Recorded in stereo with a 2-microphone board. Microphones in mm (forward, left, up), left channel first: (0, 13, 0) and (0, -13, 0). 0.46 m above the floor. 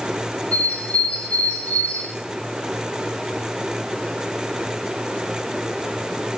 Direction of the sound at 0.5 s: 65° left (ahead or behind).